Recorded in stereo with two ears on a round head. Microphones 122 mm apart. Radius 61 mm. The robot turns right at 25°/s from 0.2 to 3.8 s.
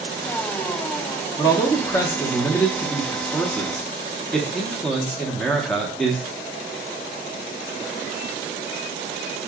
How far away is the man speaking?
About 0.7 m.